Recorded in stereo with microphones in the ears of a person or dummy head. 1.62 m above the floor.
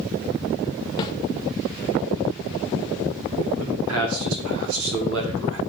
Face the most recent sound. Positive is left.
turn(degrees=-65)  # may be behind; listen again after turning